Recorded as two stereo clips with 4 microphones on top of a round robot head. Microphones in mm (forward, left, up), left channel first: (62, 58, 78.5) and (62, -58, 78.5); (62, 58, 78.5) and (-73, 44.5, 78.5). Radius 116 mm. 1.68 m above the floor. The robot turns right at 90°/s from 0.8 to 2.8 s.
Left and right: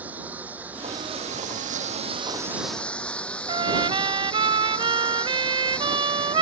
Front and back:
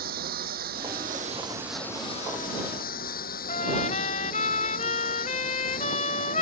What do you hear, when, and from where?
0.0 s a lawn mower: 170° right; by 6.4 s 10° left
3.5 s a trumpet: 45° right